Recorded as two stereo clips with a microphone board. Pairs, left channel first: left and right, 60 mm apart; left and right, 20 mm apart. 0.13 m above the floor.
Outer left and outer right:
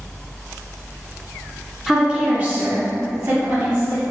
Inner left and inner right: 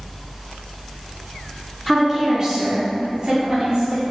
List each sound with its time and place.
1.9 s a woman speaking: 5° right (ahead or behind), 1.2 m; by 4.0 s 65° right (ahead or behind), 3 m